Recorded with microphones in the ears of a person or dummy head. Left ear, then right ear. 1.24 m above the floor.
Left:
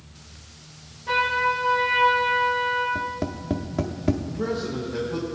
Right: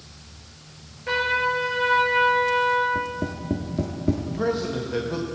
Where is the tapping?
20° left (ahead or behind), 0.8 m.